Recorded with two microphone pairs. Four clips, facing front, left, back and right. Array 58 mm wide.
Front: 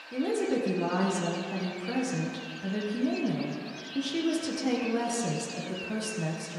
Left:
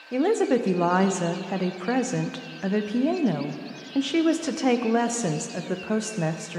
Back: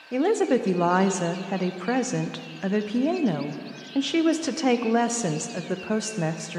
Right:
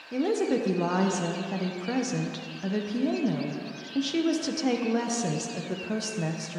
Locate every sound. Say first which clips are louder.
0.1 s a woman speaking: left 4 dB, back 7 dB; 145° left, 0.6 m